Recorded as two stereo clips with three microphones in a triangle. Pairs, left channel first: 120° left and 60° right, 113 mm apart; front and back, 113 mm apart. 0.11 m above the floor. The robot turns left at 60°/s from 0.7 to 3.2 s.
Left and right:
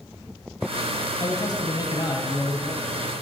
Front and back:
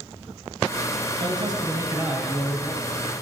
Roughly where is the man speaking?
Behind.